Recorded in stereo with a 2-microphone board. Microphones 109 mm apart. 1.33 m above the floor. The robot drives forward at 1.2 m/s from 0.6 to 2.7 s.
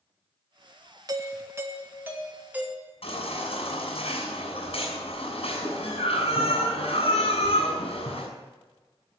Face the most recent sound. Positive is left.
turn(degrees=65)  # may be behind; listen again after turning